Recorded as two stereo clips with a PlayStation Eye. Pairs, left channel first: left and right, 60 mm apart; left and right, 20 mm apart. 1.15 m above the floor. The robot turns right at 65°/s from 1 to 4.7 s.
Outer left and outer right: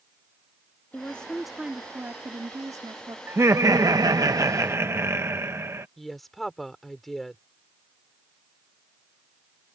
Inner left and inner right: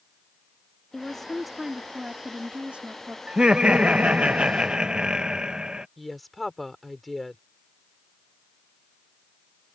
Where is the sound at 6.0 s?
Centre (ahead or behind).